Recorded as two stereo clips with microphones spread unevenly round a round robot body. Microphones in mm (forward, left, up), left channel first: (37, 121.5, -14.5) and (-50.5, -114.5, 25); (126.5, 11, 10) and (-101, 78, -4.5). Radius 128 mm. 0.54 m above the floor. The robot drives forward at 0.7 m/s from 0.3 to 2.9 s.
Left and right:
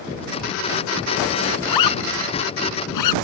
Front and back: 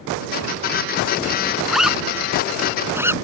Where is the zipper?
75° left; by 3.2 s 80° left.